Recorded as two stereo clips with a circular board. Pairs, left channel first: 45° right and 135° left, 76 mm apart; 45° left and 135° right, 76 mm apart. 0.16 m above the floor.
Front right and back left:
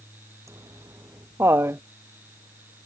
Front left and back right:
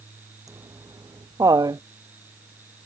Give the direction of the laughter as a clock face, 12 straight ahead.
6 o'clock.